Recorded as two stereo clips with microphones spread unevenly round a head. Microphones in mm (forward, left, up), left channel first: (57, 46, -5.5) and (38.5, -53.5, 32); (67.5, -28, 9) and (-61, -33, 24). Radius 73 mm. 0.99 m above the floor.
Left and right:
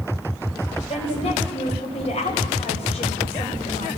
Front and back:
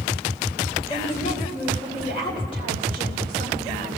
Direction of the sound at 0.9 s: 60° left.